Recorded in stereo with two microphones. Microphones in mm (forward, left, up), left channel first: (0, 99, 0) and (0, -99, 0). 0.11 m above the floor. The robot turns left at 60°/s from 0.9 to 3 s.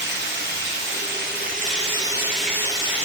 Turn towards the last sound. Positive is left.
turn(degrees=145)